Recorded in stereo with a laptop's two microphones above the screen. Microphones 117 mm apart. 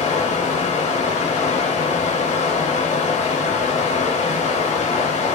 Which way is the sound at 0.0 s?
85° left.